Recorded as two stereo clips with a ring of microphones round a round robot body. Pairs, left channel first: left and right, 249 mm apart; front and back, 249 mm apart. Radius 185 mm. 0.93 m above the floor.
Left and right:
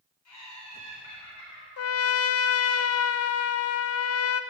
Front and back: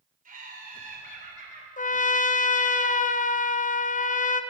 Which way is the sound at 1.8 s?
65° left.